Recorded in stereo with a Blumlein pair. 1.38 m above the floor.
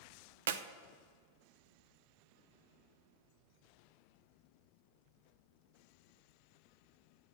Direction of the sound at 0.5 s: 60° right.